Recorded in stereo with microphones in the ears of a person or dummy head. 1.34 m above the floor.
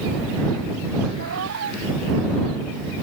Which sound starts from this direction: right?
A cat meowing, at 1.2 s.